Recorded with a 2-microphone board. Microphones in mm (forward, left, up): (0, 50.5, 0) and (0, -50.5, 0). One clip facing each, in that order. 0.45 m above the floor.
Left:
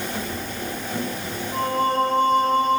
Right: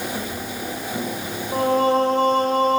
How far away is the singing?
About 0.5 m.